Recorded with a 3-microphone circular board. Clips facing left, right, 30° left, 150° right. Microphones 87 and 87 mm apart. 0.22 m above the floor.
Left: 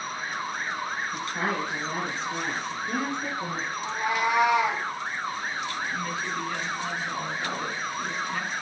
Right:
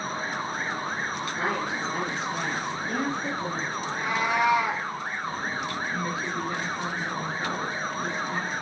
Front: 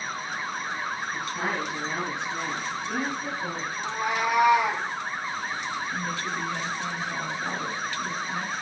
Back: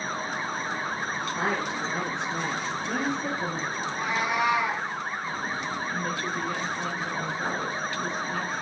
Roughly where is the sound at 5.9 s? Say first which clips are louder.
Right 1 dB, back 1 dB; behind.